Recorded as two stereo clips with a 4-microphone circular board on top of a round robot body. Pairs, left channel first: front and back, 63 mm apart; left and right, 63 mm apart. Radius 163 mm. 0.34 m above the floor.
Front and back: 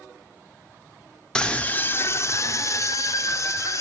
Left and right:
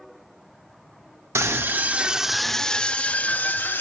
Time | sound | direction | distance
1.4 | a scream | 75° right | 1.5 m